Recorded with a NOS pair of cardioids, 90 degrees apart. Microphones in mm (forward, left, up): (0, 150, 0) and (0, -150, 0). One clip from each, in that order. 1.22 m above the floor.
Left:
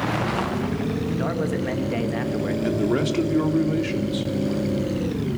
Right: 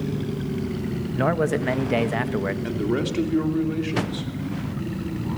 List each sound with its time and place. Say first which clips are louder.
1.1 s a man speaking: right 7 dB; 35° right, 1.5 m
2.6 s a man speaking: left 3 dB; 15° left, 2.5 m